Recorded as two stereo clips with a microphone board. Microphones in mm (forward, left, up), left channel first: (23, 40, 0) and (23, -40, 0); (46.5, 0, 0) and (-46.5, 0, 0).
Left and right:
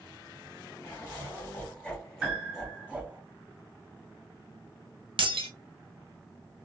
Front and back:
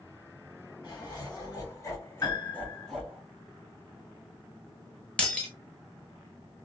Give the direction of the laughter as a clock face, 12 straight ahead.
11 o'clock.